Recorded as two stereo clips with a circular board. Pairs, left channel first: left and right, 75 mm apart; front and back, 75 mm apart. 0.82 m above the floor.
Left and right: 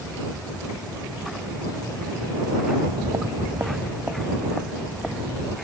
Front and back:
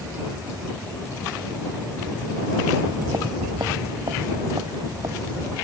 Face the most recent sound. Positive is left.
turn(degrees=165)